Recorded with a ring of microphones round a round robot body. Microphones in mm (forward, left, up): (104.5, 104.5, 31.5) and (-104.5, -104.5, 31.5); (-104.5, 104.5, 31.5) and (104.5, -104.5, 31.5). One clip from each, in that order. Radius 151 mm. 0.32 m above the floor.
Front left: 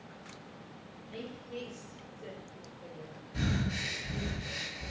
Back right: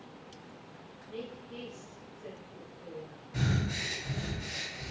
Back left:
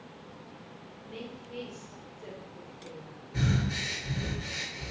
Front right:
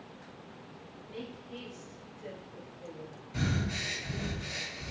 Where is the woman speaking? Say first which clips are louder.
Back right 1 dB, back left 1 dB; 115° left, 1.5 m; by 4.3 s 65° right, 1.8 m.